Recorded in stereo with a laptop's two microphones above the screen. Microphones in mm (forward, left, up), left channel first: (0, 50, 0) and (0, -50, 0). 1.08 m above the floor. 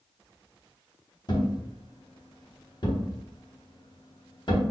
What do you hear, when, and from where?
1.3 s a thud: 45° left (ahead or behind), 0.9 m